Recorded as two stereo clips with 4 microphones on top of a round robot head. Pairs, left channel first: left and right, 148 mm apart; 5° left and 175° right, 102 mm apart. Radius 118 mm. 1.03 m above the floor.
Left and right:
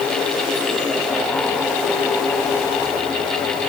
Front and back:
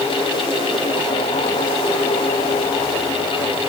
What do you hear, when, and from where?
Only background noise.